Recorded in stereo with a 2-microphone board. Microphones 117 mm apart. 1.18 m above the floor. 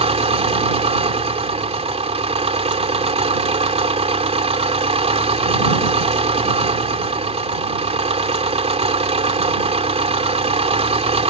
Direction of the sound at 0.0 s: 60° right (ahead or behind).